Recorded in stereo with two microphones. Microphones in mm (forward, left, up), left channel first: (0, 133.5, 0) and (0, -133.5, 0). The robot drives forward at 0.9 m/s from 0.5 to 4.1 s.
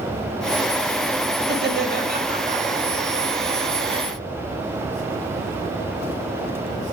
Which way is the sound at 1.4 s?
45° right (ahead or behind).